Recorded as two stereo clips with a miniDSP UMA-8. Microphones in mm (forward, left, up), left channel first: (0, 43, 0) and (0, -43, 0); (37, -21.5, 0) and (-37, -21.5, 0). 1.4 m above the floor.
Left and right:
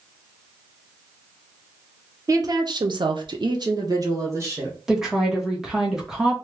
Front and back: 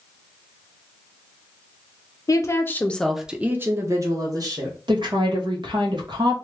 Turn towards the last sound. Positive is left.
turn(degrees=-175)